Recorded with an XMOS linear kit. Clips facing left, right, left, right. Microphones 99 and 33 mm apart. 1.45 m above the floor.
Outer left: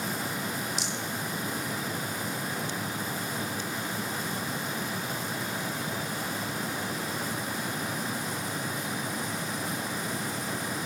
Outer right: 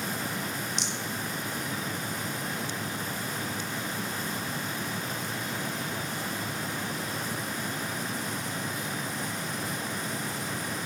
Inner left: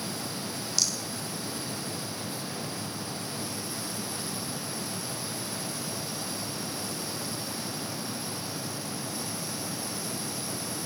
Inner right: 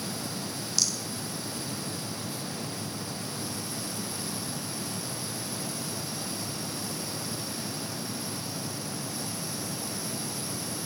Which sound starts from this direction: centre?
A rattle, at 0.8 s.